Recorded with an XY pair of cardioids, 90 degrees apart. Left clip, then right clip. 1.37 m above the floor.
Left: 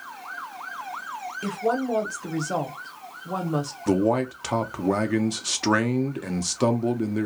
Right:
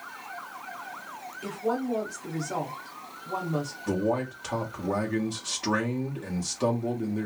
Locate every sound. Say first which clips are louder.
1.4 s a woman speaking: left 4 dB; 55° left, 1.1 m
3.9 s a man speaking: left 6 dB; 55° left, 0.8 m